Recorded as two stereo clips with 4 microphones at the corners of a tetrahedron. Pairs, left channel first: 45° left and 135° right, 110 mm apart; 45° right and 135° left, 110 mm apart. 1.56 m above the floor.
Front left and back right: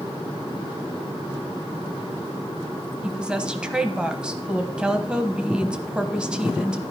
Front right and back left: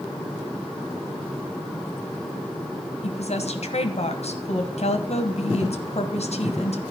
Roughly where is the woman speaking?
Ahead right.